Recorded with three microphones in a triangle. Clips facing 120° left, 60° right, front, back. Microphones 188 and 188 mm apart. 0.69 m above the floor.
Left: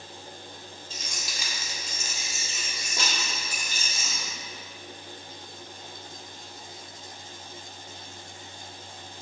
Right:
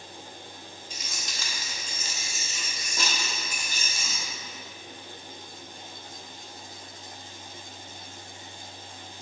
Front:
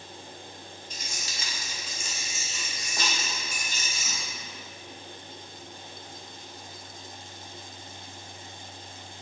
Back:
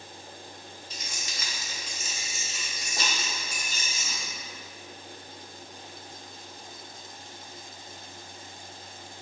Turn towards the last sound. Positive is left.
turn(degrees=130)